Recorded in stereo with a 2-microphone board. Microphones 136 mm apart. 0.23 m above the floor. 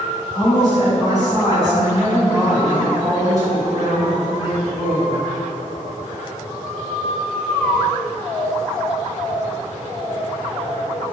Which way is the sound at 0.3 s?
30° right (ahead or behind).